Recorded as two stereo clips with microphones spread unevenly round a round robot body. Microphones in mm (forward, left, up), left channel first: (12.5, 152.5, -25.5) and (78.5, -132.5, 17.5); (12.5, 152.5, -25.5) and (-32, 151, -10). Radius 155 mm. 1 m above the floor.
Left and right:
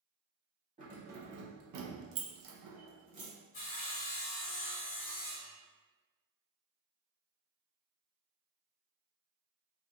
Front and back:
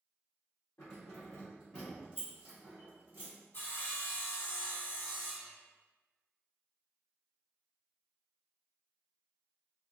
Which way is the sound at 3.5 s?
45° left.